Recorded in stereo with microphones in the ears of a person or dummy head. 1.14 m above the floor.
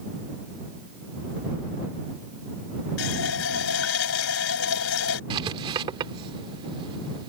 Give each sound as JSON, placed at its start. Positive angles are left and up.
{"t": 3.0, "sound": "a running tap", "side_deg": 85}
{"t": 5.3, "sound": "writing", "side_deg": -25}